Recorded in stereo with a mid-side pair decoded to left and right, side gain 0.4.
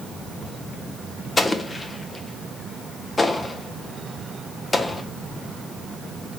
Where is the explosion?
30° left, 0.8 m.